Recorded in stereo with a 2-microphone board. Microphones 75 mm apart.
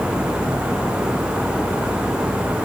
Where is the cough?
I don't hear a cough.